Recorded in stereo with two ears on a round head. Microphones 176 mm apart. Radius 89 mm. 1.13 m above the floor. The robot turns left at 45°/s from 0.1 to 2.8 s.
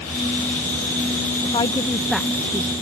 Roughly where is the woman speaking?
Left.